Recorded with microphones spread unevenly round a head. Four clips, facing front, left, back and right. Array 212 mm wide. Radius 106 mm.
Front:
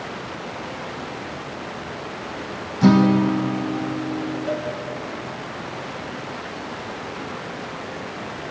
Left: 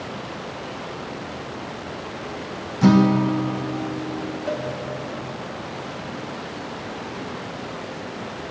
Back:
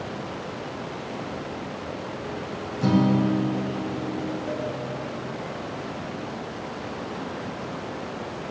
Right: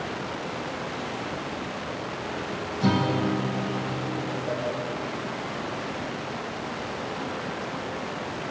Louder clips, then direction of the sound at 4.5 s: Left 4 dB, front 4 dB; 85° left.